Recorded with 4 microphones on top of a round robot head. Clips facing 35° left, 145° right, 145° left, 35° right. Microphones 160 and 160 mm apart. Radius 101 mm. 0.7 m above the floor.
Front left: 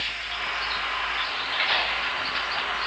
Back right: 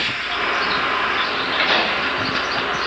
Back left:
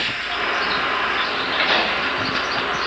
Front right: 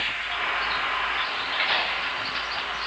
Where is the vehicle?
170° right; by 2.9 s straight behind.